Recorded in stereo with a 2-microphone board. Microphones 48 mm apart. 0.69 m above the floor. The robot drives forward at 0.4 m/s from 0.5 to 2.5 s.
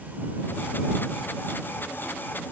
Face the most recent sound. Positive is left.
No sound to turn to.